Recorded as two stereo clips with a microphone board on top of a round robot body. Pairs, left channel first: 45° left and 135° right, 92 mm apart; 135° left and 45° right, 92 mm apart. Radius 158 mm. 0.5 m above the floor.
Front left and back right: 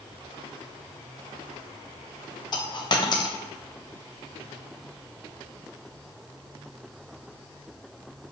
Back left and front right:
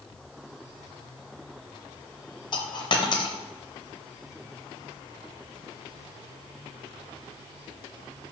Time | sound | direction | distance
2.5 | a dropped coin | 90° left | 1.0 m